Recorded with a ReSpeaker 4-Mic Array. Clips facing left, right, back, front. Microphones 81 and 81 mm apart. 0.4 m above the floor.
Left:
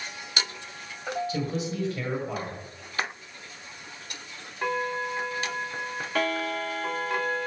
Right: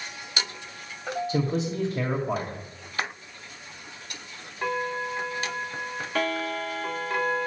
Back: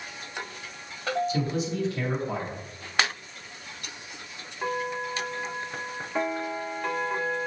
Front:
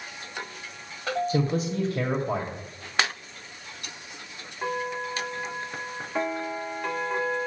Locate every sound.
1.3 s a man speaking: 30° right, 2.5 m